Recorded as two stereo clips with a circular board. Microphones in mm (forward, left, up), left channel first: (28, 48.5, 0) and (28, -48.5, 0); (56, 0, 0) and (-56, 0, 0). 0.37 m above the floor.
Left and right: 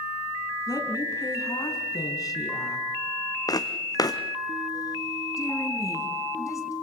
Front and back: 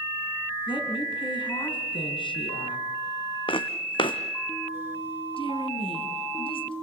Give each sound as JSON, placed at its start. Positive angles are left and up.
{"t": 0.7, "sound": "a woman speaking", "azimuth_deg": 40, "distance_m": 4.5}
{"t": 3.5, "sound": "footsteps", "azimuth_deg": 40, "distance_m": 1.7}
{"t": 5.4, "sound": "a woman speaking", "azimuth_deg": 35, "distance_m": 3.0}